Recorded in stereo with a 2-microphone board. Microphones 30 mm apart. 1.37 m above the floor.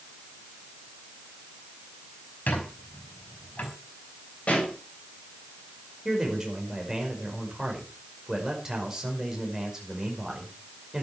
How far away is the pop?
About 8 m.